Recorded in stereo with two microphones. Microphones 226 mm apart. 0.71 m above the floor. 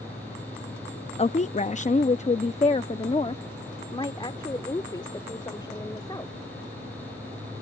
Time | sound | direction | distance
1.2 | a woman speaking | 25° left (ahead or behind) | ?